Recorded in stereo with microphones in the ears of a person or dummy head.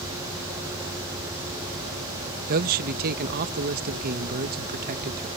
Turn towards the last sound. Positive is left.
turn(degrees=-50)  # may be behind; listen again after turning